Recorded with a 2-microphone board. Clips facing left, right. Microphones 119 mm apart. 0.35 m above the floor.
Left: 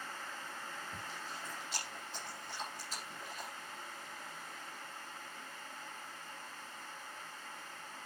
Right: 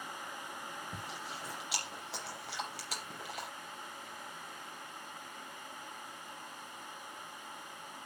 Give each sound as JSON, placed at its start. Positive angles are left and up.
{"t": 0.9, "sound": "chewing", "side_deg": -85, "distance_m": 5.5}